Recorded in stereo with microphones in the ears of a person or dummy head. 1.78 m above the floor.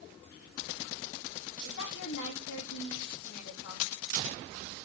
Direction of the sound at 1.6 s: 70° left (ahead or behind).